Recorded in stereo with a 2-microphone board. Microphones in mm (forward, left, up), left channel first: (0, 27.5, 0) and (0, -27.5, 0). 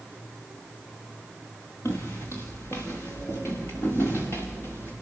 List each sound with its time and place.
1.9 s footsteps: 55° left (ahead or behind), 3.5 m